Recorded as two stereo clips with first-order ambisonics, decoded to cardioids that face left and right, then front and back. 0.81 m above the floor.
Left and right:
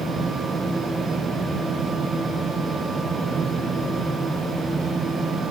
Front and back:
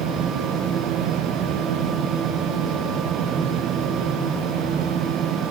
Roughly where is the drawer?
I don't hear a drawer.